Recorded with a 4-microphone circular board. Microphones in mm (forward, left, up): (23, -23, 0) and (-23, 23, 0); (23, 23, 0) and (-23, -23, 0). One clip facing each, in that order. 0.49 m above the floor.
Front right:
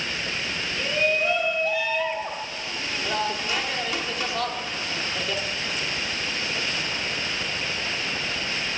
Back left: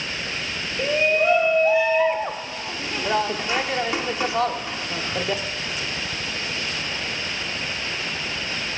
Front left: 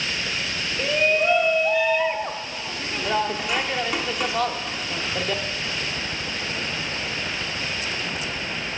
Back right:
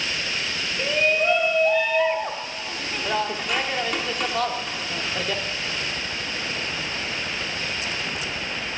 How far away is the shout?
About 0.9 m.